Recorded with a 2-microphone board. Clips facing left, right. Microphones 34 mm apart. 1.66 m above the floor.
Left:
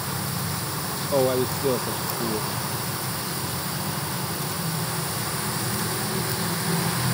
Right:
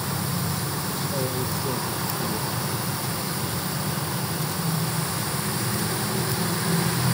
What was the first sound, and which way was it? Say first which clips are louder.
A man speaking: left 10 dB; 75° left (ahead or behind).